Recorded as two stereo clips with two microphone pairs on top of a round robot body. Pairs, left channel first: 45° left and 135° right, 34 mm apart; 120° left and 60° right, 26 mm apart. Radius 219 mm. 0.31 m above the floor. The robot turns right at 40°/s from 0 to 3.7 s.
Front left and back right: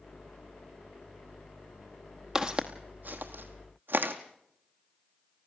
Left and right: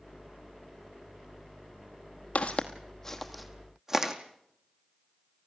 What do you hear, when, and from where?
2.4 s footsteps: 155° left, 0.9 m; by 4.1 s 130° right, 1.7 m